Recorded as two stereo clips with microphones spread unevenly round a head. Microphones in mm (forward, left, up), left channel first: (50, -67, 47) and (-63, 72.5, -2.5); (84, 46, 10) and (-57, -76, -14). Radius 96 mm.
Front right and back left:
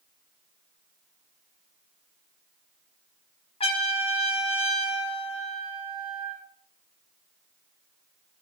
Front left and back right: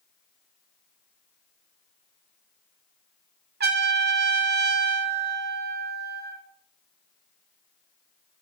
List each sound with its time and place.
3.6 s a trumpet: 100° right, 1.3 m